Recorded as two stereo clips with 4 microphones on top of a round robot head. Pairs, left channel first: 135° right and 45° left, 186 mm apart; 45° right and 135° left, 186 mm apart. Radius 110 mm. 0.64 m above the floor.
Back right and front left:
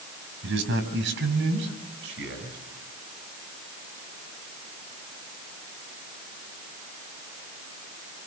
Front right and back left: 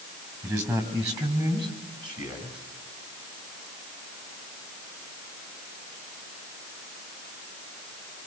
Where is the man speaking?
60° left, 5.5 m; by 2.6 s 70° left, 7.5 m.